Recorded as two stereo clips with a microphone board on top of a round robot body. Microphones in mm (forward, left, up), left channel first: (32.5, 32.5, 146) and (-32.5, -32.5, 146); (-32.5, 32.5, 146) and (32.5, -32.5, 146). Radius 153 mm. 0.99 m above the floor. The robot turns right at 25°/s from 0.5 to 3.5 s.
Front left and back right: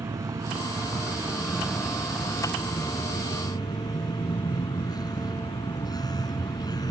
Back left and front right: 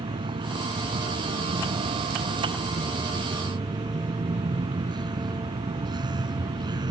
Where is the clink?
No clink in this recording.